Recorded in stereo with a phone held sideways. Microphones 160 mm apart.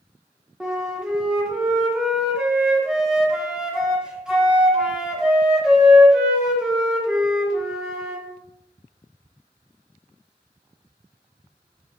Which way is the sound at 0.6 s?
5° right (ahead or behind).